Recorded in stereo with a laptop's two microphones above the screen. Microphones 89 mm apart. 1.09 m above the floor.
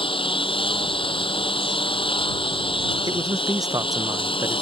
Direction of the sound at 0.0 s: 80° left.